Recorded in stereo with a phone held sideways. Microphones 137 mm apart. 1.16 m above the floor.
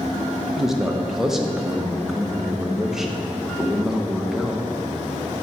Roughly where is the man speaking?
Centre.